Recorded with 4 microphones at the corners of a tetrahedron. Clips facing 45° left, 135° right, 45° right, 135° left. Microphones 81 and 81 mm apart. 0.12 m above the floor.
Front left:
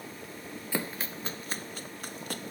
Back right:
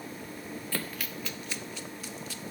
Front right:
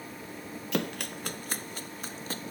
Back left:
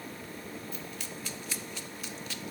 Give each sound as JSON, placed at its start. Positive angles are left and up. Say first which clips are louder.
{"t": 0.7, "sound": "running footsteps", "louder": "front left 4 dB, front right 9 dB", "azimuth_deg": -30}